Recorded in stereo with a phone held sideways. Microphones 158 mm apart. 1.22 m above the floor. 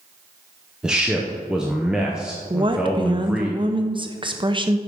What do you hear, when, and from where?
0.8 s a man speaking: 5° right (ahead or behind), 0.8 m
2.5 s a woman speaking: 30° right (ahead or behind), 0.6 m